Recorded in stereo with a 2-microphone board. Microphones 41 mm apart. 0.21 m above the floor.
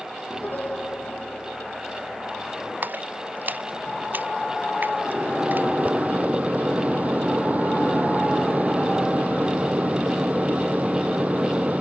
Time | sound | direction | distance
0.3 | a piano | 50° left (ahead or behind) | ?
2.8 | a splash | 50° right (ahead or behind) | ?
5.0 | a microwave | 40° right (ahead or behind) | ?